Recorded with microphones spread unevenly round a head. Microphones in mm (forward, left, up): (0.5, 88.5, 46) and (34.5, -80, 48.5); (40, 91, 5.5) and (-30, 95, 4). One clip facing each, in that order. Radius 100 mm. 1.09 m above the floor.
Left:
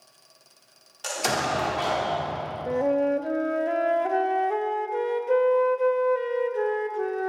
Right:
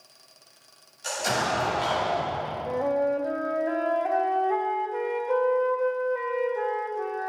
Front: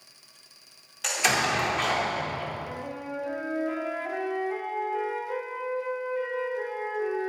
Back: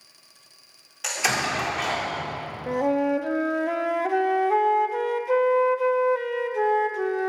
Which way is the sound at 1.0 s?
90° left.